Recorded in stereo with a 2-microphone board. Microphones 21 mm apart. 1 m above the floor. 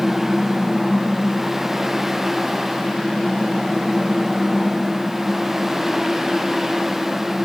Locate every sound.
Only background noise.